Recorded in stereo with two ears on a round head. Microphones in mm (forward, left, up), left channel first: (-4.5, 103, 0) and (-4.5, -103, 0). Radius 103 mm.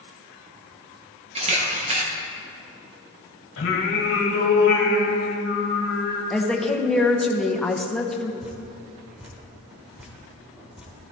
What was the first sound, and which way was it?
A camera shutter, 30° right (ahead or behind).